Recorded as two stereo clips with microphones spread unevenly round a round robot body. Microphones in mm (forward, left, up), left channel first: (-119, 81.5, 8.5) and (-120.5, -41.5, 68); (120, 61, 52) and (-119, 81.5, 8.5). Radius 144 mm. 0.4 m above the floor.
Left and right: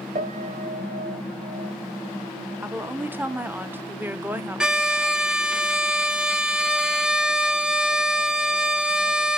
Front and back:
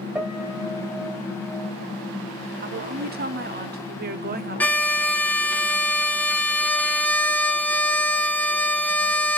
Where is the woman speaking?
175° left, 1.1 m.